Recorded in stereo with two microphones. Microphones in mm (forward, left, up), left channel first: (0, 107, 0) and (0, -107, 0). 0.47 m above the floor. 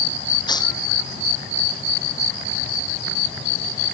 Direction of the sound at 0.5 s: 20° left (ahead or behind).